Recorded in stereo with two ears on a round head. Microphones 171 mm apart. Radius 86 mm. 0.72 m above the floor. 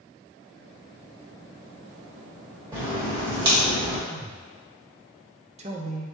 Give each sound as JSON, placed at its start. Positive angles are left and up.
{"t": 2.7, "sound": "a crack", "side_deg": -25, "distance_m": 1.5}
{"t": 4.1, "sound": "a man speaking", "side_deg": -35, "distance_m": 0.6}